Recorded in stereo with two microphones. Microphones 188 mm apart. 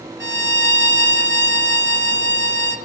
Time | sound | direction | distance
0.2 | a violin | 85° right | 1.7 m